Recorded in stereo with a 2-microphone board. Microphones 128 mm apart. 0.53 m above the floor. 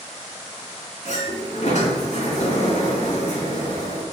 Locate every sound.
1.1 s a sliding door: 65° left (ahead or behind), 2.5 m